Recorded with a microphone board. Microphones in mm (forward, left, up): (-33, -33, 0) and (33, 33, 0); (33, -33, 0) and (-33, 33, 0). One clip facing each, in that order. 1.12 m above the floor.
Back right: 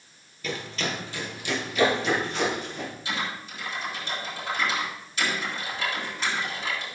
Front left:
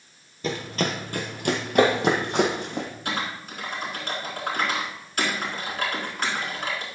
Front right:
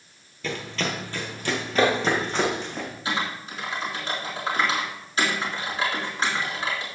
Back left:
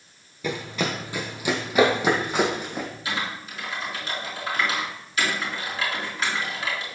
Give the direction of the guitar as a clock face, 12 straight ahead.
No guitar in this recording.